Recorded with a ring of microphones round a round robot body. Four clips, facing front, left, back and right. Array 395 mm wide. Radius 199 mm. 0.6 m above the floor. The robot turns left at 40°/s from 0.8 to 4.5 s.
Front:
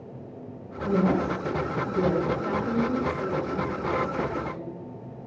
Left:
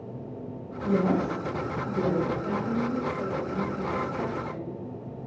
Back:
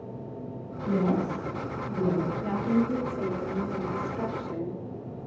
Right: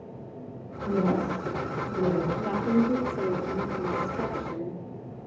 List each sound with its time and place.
0.8 s a woman speaking: 50° left, 3.5 m; by 2.3 s 5° right, 3.5 m
2.4 s a woman speaking: 60° right, 2 m; by 4.8 s 145° right, 2 m